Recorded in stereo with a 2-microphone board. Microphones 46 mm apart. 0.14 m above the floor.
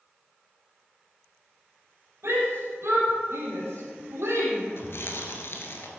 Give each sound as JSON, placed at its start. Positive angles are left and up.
{"t": 2.2, "sound": "a shout", "side_deg": -70, "distance_m": 4.5}
{"t": 4.8, "sound": "chewing", "side_deg": 60, "distance_m": 1.5}